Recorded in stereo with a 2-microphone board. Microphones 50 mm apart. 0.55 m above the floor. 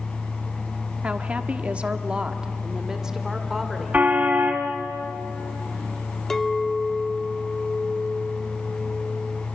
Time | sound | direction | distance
1.0 | a woman speaking | 25° right (ahead or behind) | 1.2 m
3.9 | a car horn | 35° right (ahead or behind) | 2 m
6.3 | a clink | 10° left (ahead or behind) | 0.6 m